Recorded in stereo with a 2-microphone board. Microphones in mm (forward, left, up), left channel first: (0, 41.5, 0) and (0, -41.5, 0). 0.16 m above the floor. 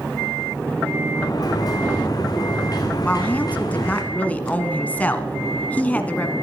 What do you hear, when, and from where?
1.1 s a sliding door: 50° left (ahead or behind), 2.5 m
3.0 s a woman speaking: 20° left (ahead or behind), 1.4 m